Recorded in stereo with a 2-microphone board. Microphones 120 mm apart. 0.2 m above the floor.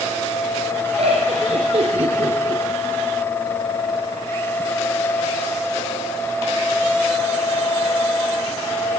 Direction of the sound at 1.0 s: 60° right (ahead or behind).